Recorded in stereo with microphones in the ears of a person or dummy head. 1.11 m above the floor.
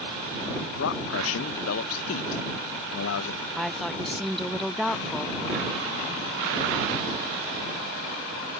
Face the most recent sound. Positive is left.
turn(degrees=0)  # may be behind; listen again after turning